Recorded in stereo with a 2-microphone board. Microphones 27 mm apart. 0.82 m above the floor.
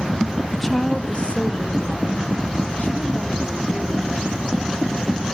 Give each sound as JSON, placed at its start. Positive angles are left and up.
{"t": 0.5, "sound": "a woman speaking", "side_deg": 5, "distance_m": 0.6}